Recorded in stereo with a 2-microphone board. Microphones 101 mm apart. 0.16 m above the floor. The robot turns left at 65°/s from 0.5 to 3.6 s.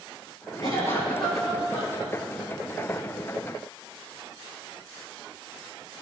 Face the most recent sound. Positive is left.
turn(degrees=-150)